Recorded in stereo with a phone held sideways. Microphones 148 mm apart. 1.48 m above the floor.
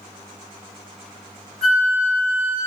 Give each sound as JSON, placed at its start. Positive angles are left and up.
{"t": 1.6, "sound": "a flute", "side_deg": 5, "distance_m": 1.4}